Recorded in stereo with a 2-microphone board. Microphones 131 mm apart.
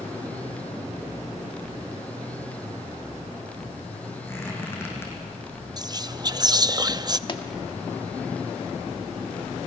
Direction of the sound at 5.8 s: 30° right (ahead or behind).